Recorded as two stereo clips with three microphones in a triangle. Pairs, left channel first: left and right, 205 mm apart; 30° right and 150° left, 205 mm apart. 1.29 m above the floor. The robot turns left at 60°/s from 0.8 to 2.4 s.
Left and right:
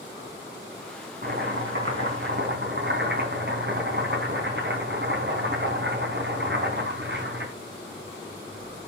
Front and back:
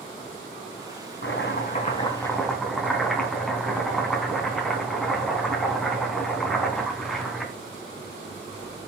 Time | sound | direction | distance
1.2 | chopping | 50° right | 4 m